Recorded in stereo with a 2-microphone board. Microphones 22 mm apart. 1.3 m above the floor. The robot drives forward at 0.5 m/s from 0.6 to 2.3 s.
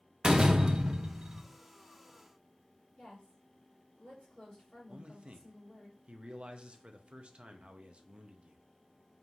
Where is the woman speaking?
65° left (ahead or behind), 3 m.